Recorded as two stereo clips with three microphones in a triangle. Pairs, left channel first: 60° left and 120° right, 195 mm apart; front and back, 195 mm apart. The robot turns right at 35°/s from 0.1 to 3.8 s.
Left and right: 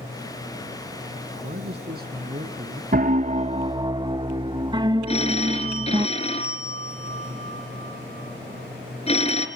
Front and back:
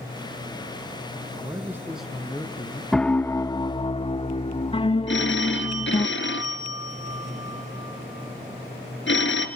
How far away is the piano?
About 0.5 m.